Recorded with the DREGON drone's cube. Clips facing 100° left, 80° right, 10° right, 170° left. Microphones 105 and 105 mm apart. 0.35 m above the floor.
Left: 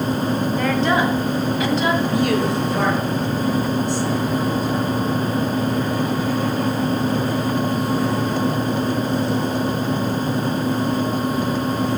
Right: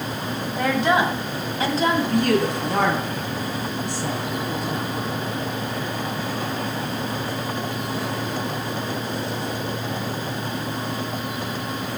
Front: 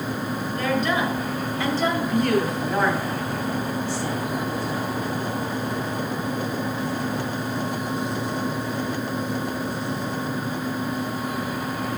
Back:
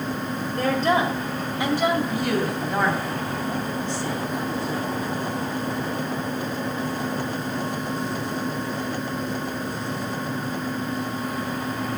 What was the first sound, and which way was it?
A woman speaking, 160° right.